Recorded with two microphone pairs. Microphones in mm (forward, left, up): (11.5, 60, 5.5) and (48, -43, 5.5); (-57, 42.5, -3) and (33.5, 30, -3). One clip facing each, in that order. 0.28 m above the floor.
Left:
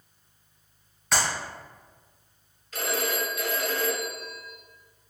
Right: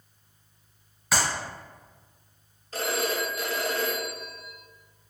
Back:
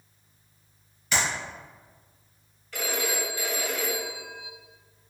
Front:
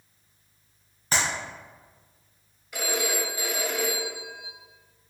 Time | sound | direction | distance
1.1 | a clap | 15° left | 1.5 m
2.7 | a phone ringing | 75° right | 0.8 m